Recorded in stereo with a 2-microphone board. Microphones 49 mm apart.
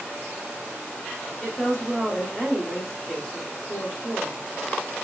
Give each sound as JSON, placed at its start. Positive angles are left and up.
{"t": 1.4, "sound": "a woman speaking", "side_deg": 10, "distance_m": 0.8}